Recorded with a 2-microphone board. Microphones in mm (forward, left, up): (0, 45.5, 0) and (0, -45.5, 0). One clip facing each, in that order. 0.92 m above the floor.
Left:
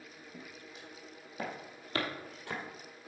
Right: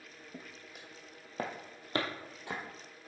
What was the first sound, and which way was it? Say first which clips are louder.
Footsteps: even; 60° right (ahead or behind).